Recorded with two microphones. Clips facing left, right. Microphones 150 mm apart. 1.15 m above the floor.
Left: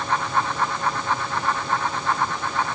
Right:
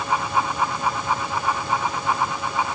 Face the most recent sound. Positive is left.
No sound to turn to.